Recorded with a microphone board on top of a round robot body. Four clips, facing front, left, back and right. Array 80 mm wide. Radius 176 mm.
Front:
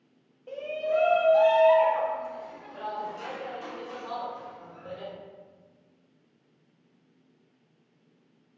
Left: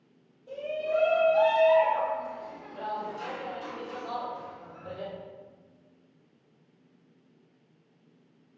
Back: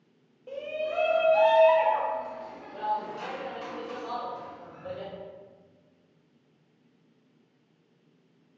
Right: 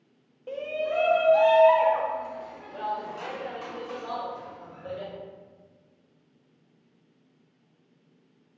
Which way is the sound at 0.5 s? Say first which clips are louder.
Right 1 dB, front 3 dB; 90° right.